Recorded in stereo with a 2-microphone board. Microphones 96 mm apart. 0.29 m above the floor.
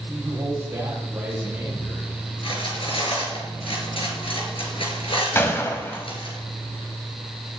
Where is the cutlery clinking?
65° left (ahead or behind), 3.5 m.